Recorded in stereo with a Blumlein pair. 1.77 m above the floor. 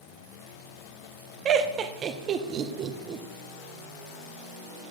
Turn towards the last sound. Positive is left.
turn(degrees=-30)